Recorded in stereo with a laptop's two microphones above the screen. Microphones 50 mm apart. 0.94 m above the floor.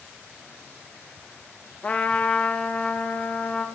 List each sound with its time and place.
1.8 s a trumpet: 30° left (ahead or behind), 0.9 m